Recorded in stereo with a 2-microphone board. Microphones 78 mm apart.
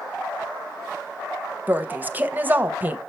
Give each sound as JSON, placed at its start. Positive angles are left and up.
{"t": 1.7, "sound": "a woman speaking", "side_deg": -25, "distance_m": 0.6}